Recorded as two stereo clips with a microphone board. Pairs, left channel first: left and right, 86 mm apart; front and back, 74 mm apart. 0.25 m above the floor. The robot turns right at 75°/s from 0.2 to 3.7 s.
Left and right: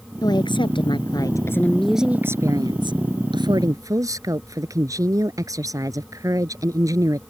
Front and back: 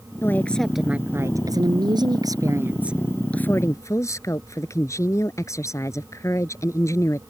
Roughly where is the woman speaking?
Ahead left.